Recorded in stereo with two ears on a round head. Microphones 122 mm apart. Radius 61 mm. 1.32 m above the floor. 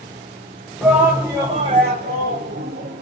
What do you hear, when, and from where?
0.8 s a shout: 5° right (ahead or behind), 0.9 m; by 3.0 s 85° right, 1.0 m